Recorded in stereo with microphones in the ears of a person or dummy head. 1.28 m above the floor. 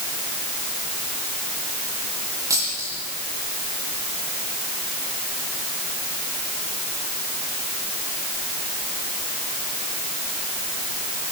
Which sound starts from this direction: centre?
A dropped coin, at 2.5 s.